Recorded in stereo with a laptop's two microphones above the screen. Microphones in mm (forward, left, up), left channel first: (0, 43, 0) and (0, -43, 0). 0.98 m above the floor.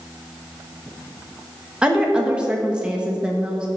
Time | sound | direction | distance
1.8 | a woman speaking | 10° right (ahead or behind) | 1.1 m